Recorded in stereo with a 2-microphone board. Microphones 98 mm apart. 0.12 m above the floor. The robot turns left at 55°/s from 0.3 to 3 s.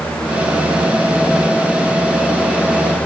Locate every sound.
Only background noise.